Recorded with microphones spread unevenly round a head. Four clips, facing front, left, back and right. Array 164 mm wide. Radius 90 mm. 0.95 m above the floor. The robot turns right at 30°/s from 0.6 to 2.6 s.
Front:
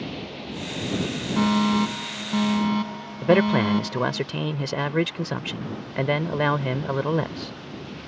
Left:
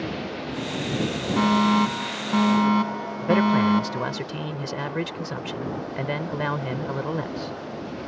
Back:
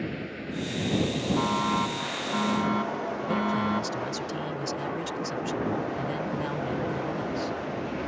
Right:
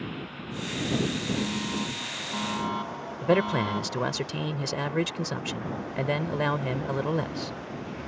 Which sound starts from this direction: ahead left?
A fire alarm, at 1.4 s.